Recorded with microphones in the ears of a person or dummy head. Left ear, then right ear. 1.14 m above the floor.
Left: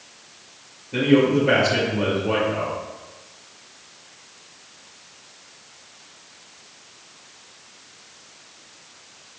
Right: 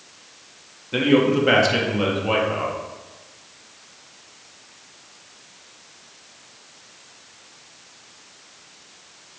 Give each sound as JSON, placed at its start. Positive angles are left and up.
{"t": 0.9, "sound": "a man speaking", "side_deg": -50, "distance_m": 1.9}